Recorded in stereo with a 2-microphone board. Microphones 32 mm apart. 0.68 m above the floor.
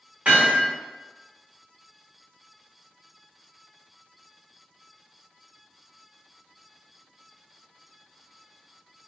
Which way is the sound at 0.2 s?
50° right (ahead or behind).